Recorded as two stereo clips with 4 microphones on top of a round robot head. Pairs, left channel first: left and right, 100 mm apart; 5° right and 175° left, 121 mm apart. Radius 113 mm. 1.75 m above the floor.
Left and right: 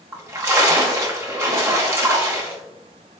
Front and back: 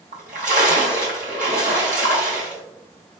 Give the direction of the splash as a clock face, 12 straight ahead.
5 o'clock.